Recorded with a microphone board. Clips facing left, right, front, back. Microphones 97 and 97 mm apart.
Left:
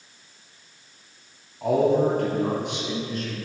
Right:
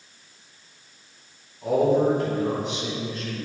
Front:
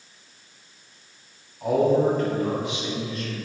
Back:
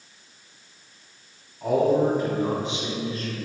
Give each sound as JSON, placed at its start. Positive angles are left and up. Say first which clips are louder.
{"t": 1.6, "sound": "a man speaking", "louder": "even, front 1 dB", "azimuth_deg": 85, "distance_m": 2.5}